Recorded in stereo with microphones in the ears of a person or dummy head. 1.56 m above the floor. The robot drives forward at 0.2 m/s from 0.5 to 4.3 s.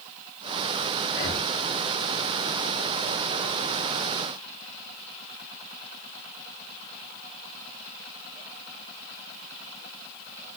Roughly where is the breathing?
Left.